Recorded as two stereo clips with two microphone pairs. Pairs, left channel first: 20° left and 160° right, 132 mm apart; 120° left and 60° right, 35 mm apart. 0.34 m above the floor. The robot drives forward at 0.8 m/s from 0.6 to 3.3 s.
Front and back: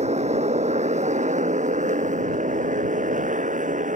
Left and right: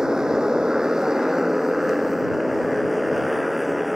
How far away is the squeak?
I don't hear a squeak.